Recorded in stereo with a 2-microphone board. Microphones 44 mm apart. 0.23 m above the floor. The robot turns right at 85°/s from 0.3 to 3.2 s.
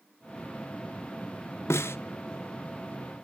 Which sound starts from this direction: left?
A snare drum, at 1.7 s.